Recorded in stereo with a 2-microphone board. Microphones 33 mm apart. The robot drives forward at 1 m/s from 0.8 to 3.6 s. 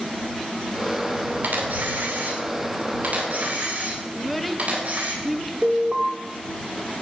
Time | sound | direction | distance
1.4 | a camera shutter | 75° right (ahead or behind) | 2.5 m
4.1 | a child speaking | centre (ahead or behind) | 0.7 m
5.6 | an alarm | 20° right (ahead or behind) | 1.6 m